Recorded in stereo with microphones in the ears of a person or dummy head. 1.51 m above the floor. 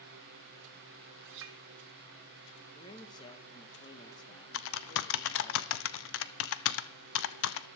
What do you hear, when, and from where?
1.2 s a clink: 65° right (ahead or behind), 1.7 m
2.8 s a man speaking: 25° left (ahead or behind), 1.5 m
4.5 s typing on a keyboard: 70° left (ahead or behind), 0.6 m